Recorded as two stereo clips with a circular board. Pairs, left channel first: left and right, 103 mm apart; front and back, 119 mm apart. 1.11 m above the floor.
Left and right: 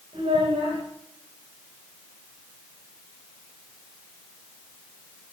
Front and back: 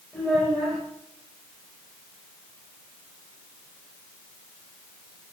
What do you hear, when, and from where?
0.1 s a child speaking: 85° right, 4.5 m